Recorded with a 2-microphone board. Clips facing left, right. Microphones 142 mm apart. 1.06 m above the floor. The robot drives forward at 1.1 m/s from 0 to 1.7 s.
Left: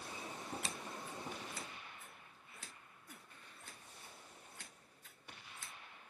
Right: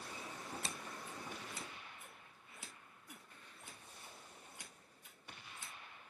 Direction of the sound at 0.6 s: 30° right (ahead or behind).